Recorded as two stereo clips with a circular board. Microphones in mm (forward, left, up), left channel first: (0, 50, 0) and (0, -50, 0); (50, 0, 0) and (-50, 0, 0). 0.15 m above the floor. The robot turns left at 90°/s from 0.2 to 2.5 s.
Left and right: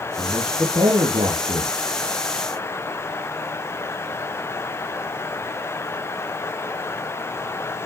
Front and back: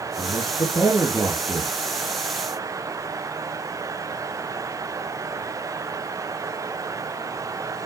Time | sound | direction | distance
0.2 | a man speaking | 5° left | 3 m